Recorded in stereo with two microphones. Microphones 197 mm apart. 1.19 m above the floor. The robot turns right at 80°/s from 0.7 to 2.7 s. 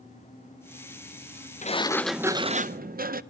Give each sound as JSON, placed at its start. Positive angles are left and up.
{"t": 1.6, "sound": "a sliding door", "azimuth_deg": 140, "distance_m": 0.6}